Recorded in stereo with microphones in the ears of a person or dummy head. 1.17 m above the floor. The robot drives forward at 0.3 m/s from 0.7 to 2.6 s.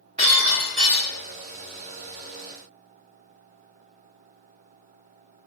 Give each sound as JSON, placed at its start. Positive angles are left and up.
{"t": 0.2, "sound": "breaking glass", "side_deg": -35, "distance_m": 1.1}